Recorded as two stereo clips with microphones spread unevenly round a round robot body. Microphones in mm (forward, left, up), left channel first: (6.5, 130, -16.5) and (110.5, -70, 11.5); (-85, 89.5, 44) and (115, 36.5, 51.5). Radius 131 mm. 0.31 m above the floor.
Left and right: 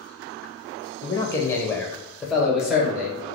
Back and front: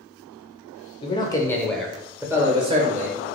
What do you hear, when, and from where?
1.0 s a man speaking: 160° left, 0.9 m; by 3.3 s 25° left, 1.2 m